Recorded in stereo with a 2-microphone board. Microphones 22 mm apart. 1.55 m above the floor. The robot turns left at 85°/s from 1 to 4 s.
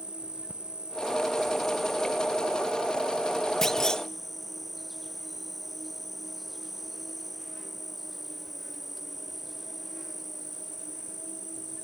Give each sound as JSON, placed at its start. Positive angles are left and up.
{"t": 0.0, "sound": "an insect", "azimuth_deg": -110, "distance_m": 0.7}
{"t": 3.6, "sound": "a clunk", "azimuth_deg": 155, "distance_m": 0.6}